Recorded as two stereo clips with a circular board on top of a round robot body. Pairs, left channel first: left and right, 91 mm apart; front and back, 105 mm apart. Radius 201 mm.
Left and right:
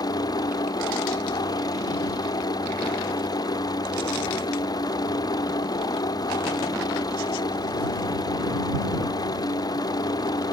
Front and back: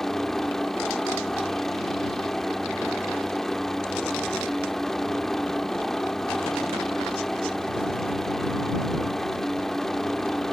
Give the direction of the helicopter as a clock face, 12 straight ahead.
9 o'clock.